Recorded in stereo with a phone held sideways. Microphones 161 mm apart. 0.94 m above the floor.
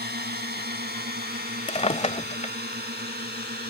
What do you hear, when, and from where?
0.0 s a drone: 75° right (ahead or behind); by 3.7 s 80° right
1.7 s a drawer: 40° left (ahead or behind)